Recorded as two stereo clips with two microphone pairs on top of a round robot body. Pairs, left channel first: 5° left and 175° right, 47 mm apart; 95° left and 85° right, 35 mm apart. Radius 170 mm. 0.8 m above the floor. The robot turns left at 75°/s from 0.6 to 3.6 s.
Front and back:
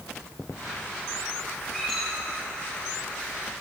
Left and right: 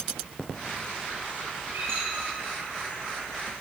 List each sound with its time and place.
1.7 s a squeak: 60° right, 7.5 m; by 2.3 s 105° right, 7.5 m